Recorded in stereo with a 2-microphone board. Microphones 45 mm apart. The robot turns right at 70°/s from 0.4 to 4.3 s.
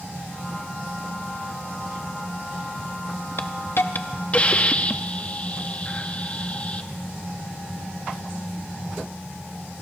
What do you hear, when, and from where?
3.4 s a hiss: 80° left, 0.6 m; by 6.9 s 145° left, 0.6 m